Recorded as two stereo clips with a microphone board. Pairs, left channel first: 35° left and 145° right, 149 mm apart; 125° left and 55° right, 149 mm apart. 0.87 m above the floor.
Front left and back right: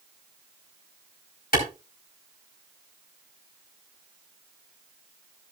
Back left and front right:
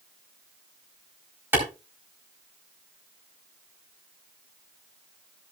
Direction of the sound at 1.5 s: 20° left.